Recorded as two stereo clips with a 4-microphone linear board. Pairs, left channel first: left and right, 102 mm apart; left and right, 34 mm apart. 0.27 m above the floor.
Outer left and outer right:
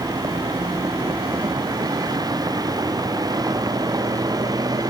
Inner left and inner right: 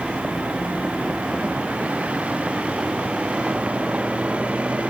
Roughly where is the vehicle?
Right.